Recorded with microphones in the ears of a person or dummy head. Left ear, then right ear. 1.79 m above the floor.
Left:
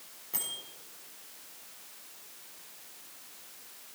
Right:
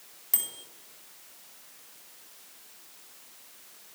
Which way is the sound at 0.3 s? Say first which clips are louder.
Right 3 dB; 45° right (ahead or behind).